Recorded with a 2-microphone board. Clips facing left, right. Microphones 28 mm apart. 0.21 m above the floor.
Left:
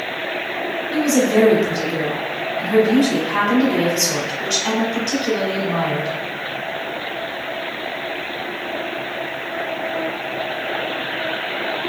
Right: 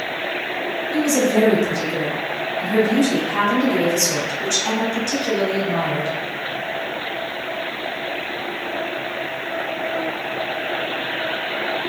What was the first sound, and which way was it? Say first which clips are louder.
A woman speaking: left 2 dB; 40° left (ahead or behind).